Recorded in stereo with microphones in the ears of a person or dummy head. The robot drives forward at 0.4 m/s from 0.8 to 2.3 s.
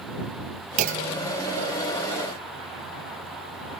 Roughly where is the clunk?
Right.